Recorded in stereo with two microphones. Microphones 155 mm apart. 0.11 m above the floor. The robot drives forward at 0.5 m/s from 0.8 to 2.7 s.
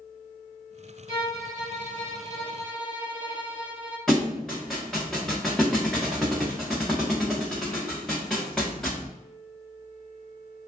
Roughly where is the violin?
Left.